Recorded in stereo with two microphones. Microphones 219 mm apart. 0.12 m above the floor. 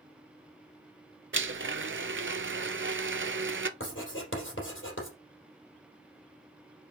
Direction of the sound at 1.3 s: 60° right (ahead or behind).